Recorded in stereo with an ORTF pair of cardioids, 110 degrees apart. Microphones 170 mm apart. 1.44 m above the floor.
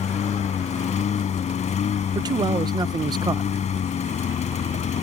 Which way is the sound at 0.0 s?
45° left.